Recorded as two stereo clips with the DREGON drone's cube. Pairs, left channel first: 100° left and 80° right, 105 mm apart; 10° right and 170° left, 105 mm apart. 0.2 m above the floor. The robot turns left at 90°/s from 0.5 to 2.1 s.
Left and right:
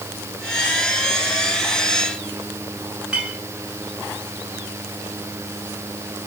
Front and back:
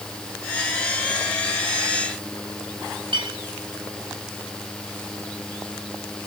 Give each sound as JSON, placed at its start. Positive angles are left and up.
{"t": 3.1, "sound": "a clink", "azimuth_deg": -165, "distance_m": 7.0}